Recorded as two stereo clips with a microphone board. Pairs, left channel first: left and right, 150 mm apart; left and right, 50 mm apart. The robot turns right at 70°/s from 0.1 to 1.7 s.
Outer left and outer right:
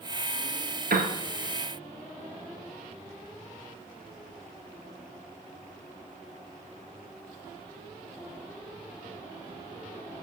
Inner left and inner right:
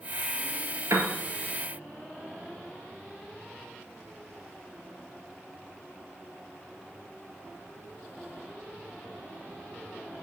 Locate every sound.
0.9 s a piano: 85° right, 1.7 m; by 1.1 s 80° right, 1.7 m